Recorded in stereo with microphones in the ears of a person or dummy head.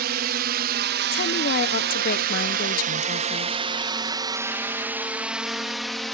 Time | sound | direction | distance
0.0 | a drone | 55° right (ahead or behind) | ?
1.1 | a woman speaking | 50° left (ahead or behind) | ?